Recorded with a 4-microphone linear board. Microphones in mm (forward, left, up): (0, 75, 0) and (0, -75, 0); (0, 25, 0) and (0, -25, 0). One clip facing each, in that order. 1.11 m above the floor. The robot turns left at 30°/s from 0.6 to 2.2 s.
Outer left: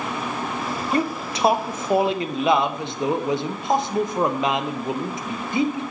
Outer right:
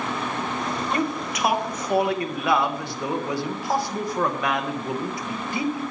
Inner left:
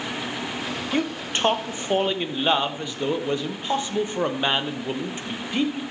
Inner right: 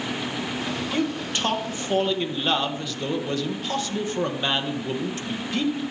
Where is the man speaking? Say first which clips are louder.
Outer left 4 dB, inner left 2 dB; 80° left, 0.6 m; by 5.8 s 45° left, 0.6 m.